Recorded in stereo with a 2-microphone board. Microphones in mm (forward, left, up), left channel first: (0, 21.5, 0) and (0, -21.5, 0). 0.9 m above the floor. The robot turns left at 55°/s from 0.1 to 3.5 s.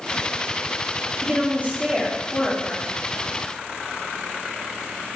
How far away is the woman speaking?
About 2.0 m.